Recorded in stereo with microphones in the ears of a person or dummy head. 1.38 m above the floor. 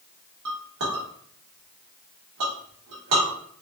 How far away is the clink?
About 1.3 m.